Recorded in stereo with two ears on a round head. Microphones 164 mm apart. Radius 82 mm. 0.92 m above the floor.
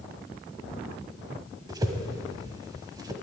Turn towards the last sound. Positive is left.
turn(degrees=-20)  # may be behind; listen again after turning